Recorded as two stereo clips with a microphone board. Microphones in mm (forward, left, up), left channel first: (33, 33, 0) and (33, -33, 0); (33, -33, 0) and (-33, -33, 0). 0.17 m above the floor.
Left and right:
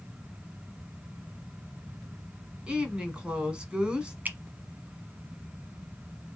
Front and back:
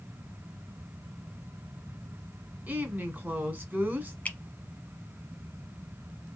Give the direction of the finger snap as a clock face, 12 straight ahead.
2 o'clock.